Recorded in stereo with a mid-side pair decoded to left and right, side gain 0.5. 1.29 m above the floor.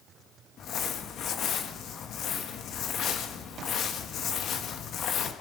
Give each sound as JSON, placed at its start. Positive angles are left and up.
{"t": 0.6, "sound": "crumpling", "azimuth_deg": 60, "distance_m": 1.7}